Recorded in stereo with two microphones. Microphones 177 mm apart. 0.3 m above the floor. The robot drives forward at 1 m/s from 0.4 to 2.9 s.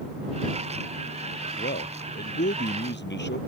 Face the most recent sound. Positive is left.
turn(degrees=80)